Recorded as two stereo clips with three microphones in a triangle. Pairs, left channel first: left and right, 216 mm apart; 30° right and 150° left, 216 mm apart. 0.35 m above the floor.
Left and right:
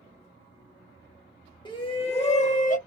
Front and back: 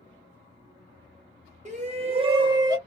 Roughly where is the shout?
Behind left.